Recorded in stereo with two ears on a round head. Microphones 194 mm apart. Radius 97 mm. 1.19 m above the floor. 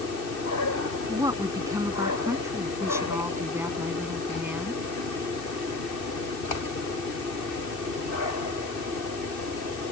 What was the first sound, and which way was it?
A woman speaking, 20° right (ahead or behind).